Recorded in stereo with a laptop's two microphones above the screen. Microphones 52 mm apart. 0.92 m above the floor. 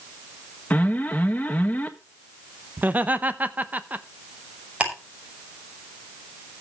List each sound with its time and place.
0.7 s an alarm: 30° left (ahead or behind), 1.3 m
2.8 s laughter: 30° right (ahead or behind), 0.8 m
4.8 s ticking: 25° right (ahead or behind), 5.5 m